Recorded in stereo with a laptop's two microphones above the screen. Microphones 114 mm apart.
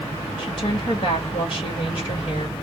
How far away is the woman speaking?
About 1.2 m.